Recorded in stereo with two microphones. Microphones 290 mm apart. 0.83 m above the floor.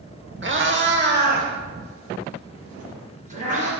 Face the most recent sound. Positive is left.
turn(degrees=-25)  # may be behind; listen again after turning